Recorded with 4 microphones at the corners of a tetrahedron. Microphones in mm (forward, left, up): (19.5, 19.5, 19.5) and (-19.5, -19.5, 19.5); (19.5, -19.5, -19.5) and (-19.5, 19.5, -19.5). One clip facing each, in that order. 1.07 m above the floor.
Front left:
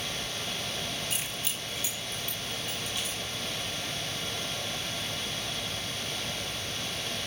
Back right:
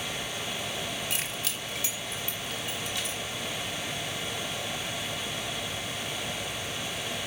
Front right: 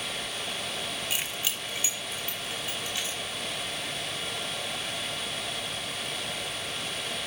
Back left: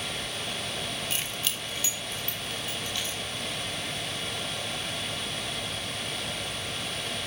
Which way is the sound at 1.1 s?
125° right.